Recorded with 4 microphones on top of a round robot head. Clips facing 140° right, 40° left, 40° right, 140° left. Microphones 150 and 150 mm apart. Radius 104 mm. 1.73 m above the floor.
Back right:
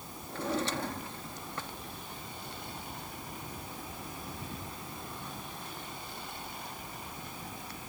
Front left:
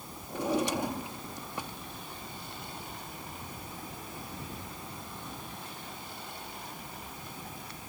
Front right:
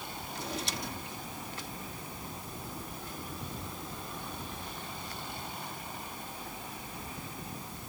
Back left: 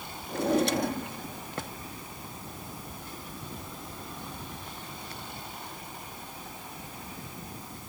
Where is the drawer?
110° left.